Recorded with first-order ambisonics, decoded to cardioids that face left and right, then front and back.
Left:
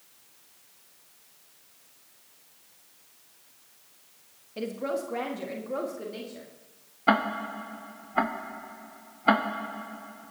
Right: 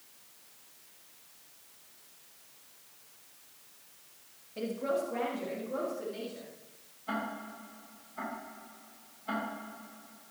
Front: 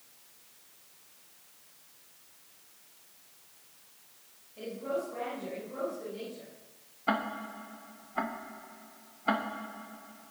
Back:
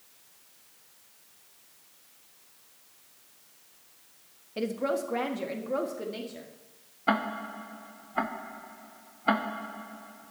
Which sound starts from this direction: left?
Ticking, at 7.1 s.